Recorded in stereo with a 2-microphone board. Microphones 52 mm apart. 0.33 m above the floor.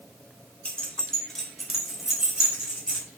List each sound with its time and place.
0.7 s keys jangling: 25° left (ahead or behind), 0.6 m; by 3.0 s 15° right (ahead or behind), 1.2 m